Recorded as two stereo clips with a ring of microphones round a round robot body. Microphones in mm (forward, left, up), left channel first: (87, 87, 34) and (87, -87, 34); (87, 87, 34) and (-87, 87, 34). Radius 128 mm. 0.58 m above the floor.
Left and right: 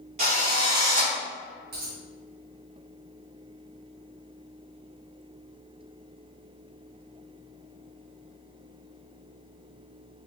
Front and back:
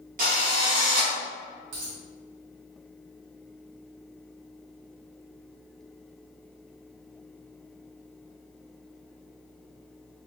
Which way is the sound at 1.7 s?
140° right.